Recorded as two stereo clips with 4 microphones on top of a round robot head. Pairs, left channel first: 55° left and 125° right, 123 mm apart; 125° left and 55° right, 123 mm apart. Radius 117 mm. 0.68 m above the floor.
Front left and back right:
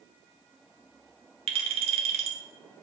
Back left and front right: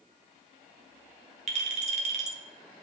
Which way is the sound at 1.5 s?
85° right.